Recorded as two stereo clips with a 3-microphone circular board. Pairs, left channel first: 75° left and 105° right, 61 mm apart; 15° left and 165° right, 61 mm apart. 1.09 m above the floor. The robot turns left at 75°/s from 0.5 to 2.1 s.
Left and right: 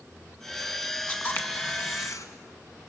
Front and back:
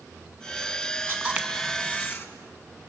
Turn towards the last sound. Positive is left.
turn(degrees=70)